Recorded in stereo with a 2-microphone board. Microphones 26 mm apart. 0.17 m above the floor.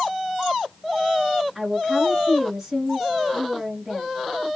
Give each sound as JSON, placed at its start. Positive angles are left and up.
{"t": 1.6, "sound": "a woman speaking", "side_deg": -10, "distance_m": 1.6}